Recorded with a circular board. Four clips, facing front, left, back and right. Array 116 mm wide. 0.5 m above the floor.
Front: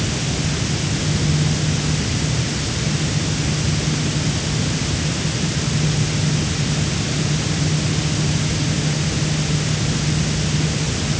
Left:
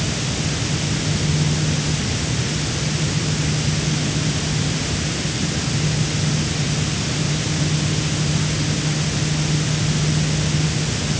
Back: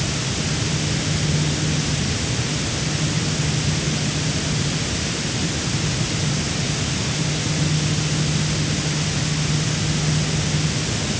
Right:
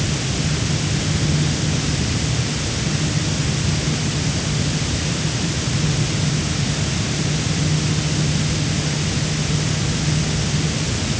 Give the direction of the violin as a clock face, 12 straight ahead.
No violin in this recording.